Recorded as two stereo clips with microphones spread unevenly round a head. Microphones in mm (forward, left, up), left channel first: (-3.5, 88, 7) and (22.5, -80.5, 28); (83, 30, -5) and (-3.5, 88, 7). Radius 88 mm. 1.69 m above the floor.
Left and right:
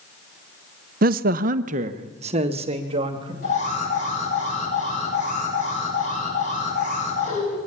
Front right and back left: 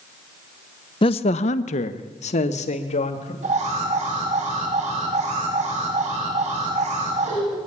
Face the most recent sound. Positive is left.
turn(degrees=150)